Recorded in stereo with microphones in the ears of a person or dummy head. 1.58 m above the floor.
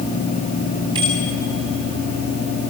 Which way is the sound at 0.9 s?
20° right (ahead or behind).